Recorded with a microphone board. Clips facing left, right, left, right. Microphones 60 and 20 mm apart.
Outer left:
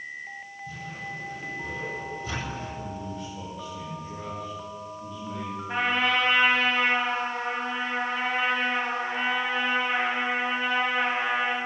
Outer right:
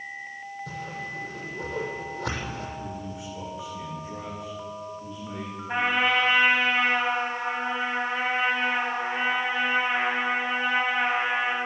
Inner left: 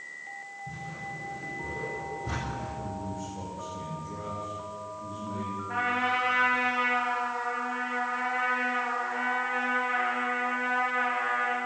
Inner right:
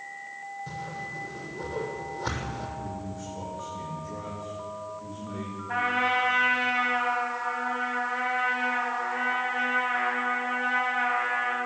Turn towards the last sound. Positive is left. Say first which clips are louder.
# outer right 1 dB, inner right 3 dB
turn(degrees=-10)  # may be behind; listen again after turning